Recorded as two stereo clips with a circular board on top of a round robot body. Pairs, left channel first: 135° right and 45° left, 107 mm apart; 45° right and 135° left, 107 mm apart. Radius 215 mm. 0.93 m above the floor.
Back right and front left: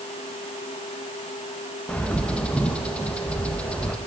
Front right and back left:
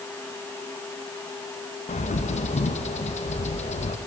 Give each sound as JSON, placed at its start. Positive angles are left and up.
{"t": 1.9, "sound": "a bird", "azimuth_deg": -55, "distance_m": 0.8}